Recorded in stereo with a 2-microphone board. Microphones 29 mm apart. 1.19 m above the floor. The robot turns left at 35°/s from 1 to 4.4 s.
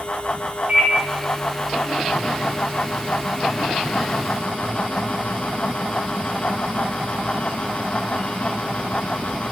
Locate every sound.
0.7 s a microwave: 55° right (ahead or behind), 0.6 m